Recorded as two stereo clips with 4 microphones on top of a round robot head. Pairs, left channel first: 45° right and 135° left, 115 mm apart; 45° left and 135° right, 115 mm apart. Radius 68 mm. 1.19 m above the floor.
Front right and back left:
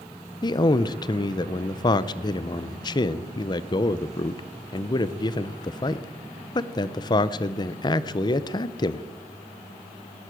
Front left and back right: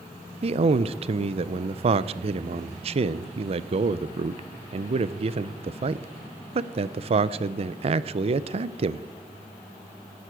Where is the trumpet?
I don't hear a trumpet.